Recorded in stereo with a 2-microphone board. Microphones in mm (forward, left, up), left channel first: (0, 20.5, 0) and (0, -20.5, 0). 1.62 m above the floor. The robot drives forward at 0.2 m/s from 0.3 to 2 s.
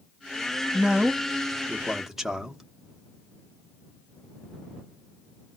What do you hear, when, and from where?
0.7 s a man speaking: 15° right (ahead or behind), 0.7 m; by 2.6 s 10° right (ahead or behind), 1.0 m